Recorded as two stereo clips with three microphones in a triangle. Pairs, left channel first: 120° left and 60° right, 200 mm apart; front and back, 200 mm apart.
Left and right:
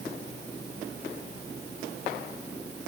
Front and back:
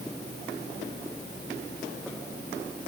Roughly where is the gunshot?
I don't hear a gunshot.